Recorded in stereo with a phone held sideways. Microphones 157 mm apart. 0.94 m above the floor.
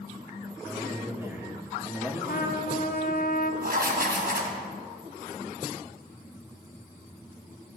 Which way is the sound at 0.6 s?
15° right (ahead or behind).